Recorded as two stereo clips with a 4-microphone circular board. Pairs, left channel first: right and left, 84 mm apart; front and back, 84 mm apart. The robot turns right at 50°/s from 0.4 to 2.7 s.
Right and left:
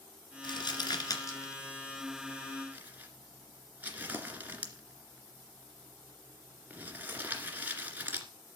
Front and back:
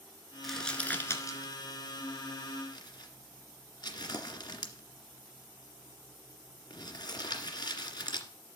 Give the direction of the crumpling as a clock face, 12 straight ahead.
3 o'clock.